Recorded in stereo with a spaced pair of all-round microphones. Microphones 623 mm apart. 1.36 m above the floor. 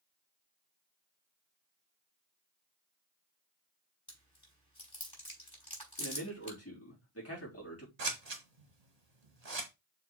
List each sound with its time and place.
4.1 s chewing: 35° left (ahead or behind), 4.5 m
6.0 s a man speaking: 20° left (ahead or behind), 3.5 m
8.0 s scissors: 85° right, 1.5 m